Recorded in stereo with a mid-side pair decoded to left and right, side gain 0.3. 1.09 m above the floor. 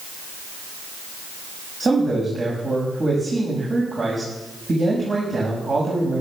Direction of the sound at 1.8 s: 50° right.